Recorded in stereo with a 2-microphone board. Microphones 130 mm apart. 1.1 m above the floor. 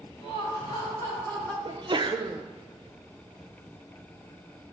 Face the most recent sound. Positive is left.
turn(degrees=-40)  # may be behind; listen again after turning